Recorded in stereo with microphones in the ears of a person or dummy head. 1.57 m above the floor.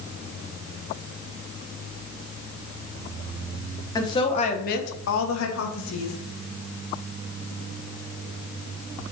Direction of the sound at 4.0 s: 15° left (ahead or behind).